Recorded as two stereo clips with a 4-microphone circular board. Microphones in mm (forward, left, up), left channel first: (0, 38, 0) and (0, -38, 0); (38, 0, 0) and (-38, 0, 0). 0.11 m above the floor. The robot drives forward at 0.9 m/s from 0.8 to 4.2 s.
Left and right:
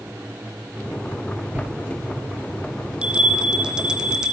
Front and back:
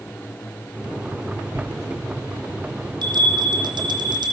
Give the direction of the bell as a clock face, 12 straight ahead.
5 o'clock.